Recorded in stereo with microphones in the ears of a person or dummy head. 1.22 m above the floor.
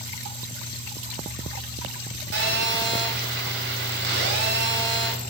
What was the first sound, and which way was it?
A phone buzzing, 55° right (ahead or behind).